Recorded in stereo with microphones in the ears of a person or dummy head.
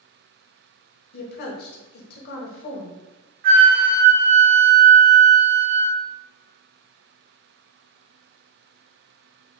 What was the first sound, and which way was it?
A woman speaking, 55° left (ahead or behind).